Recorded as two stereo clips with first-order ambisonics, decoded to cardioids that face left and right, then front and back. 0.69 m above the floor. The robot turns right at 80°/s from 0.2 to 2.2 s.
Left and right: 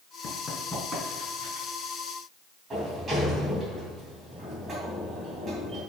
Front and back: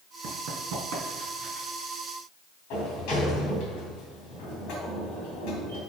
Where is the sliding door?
25° right, 3 m.